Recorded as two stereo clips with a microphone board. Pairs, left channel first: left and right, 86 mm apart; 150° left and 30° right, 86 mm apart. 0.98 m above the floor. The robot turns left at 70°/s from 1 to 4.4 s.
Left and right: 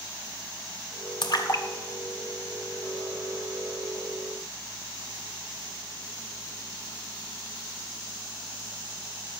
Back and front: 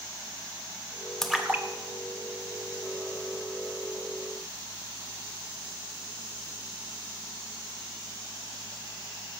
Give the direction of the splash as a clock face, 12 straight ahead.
10 o'clock.